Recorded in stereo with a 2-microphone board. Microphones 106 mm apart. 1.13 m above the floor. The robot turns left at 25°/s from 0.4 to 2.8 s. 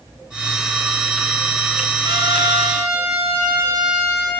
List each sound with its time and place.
2.0 s a trumpet: 45° right (ahead or behind), 3.5 m; by 4.3 s 25° right (ahead or behind), 3.5 m